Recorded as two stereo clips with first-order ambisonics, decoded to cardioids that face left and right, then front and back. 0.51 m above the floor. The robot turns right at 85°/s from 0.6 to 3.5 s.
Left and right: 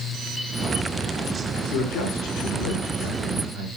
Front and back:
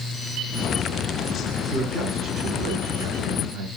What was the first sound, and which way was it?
A man speaking, 60° left.